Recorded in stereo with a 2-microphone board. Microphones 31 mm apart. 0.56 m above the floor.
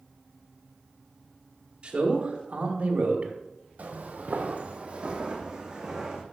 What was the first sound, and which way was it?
A man speaking, 35° right (ahead or behind).